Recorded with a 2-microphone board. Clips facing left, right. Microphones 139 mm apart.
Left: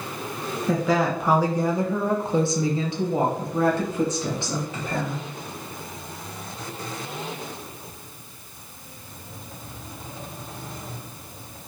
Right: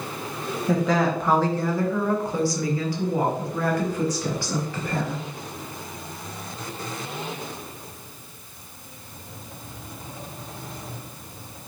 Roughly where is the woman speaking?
Centre.